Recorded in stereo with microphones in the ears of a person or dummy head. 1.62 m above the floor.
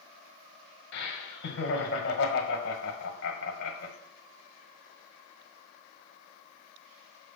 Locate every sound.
0.9 s laughter: 60° left (ahead or behind), 1.5 m